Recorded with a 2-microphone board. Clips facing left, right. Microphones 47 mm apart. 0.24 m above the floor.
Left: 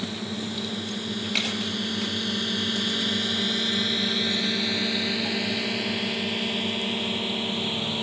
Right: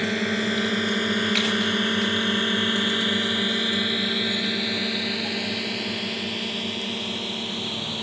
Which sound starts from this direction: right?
A drone, at 0.0 s.